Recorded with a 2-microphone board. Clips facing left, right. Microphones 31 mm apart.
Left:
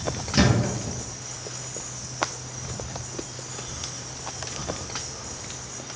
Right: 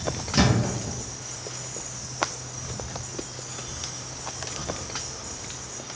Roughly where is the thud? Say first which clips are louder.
Left 1 dB; centre.